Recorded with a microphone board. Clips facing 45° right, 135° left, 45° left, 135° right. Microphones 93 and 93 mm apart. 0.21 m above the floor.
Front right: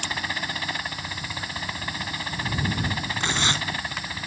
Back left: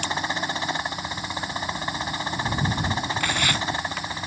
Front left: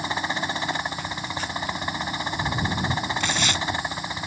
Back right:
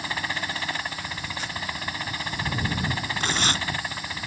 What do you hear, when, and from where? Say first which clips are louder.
0.0 s a helicopter: back left 4 dB, front left 3 dB; 95° left
3.2 s tearing paper: back left 1 dB, front left 1 dB; 105° right